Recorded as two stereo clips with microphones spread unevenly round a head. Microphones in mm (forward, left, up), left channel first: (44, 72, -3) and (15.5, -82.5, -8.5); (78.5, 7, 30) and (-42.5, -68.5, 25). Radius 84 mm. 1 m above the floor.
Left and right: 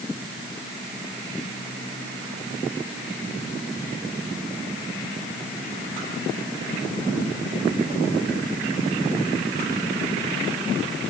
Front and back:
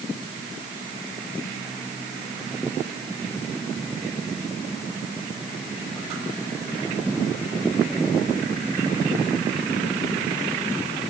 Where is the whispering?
I don't hear whispering.